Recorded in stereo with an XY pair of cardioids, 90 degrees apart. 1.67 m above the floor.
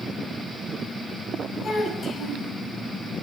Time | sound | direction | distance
1.6 | a child speaking | 60° left | 3.5 m